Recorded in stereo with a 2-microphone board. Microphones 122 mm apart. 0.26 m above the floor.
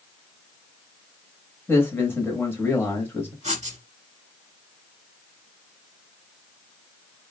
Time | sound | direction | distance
1.7 | a man speaking | 20° left (ahead or behind) | 0.9 m
3.4 | writing | 65° right (ahead or behind) | 0.6 m